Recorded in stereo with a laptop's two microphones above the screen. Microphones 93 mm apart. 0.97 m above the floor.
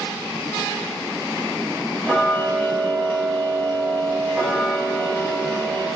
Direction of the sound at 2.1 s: 5° left (ahead or behind).